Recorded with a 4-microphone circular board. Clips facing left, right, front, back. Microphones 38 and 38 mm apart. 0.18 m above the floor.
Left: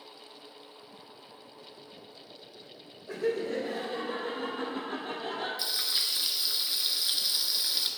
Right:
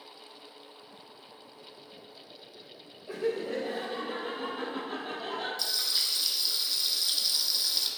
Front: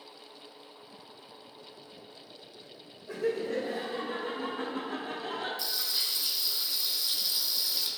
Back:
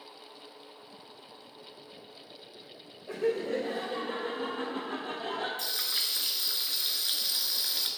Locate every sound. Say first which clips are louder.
3.1 s laughter: left 1 dB, back 1 dB; 145° right, 4 m; by 5.5 s 165° right, 5 m
5.6 s frying: even, even; 155° left, 1.0 m